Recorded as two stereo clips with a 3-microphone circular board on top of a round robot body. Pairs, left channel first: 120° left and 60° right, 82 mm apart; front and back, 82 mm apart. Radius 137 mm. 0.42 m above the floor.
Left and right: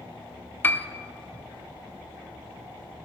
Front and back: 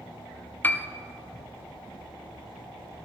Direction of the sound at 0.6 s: 60° left.